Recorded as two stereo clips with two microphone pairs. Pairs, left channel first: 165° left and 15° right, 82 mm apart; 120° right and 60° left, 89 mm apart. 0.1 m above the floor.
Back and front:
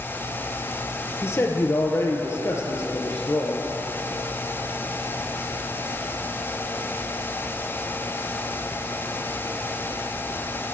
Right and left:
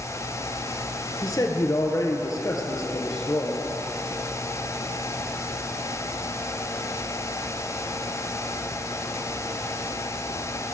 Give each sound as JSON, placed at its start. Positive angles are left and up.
{"t": 1.2, "sound": "a man speaking", "azimuth_deg": -150, "distance_m": 1.7}